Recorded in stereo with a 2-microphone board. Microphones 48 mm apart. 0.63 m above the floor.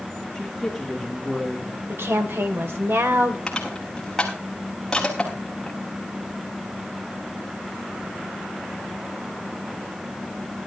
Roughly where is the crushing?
Centre.